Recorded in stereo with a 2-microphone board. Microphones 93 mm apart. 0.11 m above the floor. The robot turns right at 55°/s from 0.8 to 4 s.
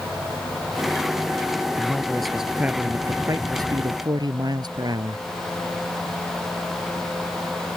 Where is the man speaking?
150° left; by 5.2 s 85° right.